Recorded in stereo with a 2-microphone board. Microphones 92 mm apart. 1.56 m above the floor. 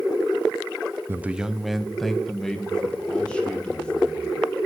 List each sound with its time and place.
1.1 s a man speaking: 25° right (ahead or behind), 0.6 m; by 4.7 s 15° left (ahead or behind), 4.5 m